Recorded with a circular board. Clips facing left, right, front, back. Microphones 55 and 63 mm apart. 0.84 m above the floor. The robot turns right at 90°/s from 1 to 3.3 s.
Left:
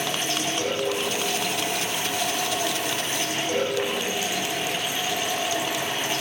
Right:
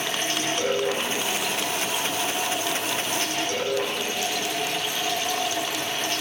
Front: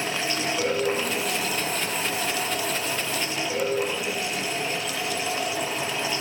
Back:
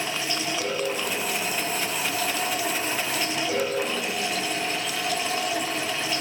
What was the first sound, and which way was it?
Running water, 40° right.